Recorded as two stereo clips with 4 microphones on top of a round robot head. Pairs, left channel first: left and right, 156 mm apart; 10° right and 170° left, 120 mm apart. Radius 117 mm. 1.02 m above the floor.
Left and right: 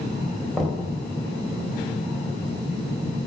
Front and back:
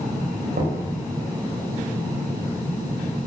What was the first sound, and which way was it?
Knocking, 175° left.